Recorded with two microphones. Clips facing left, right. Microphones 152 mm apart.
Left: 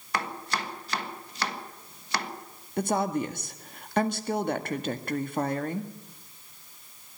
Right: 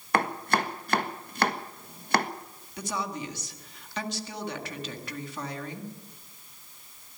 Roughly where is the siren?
I don't hear a siren.